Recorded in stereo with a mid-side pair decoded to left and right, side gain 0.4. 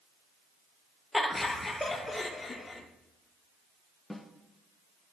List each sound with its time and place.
1.1 s laughter: 10° left, 2.5 m; by 2.8 s 30° left, 4 m
4.1 s a snare drum: 10° left, 2 m